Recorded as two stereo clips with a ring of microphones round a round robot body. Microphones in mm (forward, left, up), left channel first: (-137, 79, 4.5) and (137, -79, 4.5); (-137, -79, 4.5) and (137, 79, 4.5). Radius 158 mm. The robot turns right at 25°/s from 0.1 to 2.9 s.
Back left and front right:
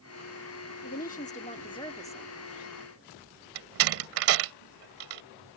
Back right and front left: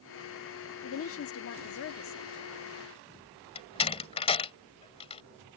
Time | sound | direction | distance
0.8 | a woman speaking | 165° right | ?
3.5 | a door slam | 80° right | ?